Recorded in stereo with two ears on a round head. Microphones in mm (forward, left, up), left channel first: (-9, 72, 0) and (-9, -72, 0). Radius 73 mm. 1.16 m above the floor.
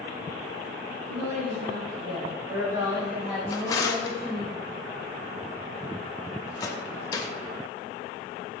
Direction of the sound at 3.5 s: 20° left (ahead or behind).